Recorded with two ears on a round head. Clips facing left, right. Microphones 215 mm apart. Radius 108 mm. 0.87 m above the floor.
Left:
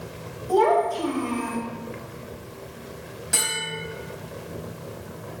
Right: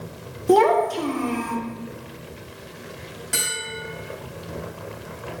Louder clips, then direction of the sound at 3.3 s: Left 1 dB; centre (ahead or behind).